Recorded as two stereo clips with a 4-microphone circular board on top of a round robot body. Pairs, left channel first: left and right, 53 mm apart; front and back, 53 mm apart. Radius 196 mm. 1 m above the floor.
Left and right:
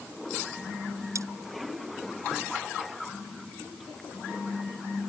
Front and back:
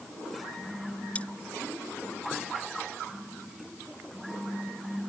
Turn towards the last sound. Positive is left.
turn(degrees=-65)